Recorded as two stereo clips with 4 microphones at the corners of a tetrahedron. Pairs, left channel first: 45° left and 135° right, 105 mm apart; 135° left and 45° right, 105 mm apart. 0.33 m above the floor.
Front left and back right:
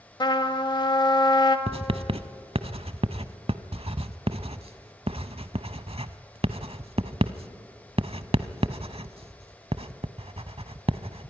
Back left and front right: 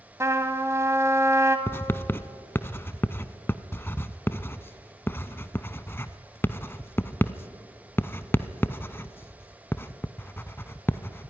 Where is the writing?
155° right, 0.7 m.